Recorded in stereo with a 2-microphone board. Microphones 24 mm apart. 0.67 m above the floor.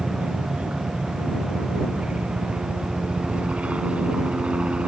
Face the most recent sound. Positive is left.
turn(degrees=-65)  # may be behind; listen again after turning